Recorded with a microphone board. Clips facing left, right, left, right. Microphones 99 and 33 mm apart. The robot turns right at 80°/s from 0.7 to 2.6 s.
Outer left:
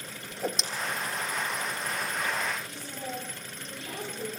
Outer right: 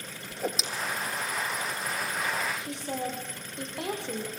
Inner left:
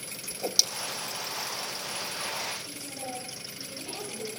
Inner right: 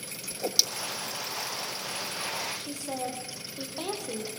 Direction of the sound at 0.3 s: Centre (ahead or behind).